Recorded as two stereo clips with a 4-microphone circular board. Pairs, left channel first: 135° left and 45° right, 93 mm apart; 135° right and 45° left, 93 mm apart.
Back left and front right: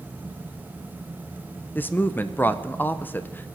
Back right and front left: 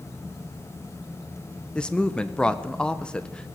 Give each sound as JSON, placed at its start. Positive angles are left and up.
{"t": 1.8, "sound": "a woman speaking", "azimuth_deg": 160, "distance_m": 0.7}